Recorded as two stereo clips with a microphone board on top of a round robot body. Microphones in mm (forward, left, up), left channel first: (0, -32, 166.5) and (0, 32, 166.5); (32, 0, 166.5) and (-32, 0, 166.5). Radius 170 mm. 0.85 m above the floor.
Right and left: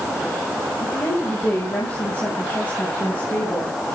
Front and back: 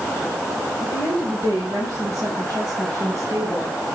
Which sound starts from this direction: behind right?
A woman speaking, at 0.8 s.